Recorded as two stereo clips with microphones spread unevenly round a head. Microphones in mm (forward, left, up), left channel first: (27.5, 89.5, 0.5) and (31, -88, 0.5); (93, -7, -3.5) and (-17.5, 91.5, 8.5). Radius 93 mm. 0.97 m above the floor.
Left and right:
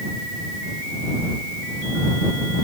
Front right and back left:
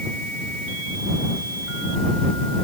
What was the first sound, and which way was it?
Only background noise.